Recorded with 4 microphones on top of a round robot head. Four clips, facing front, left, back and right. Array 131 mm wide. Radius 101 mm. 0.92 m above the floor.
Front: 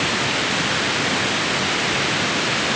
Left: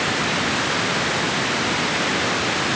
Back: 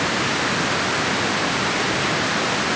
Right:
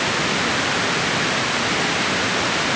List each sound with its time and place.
Only background noise.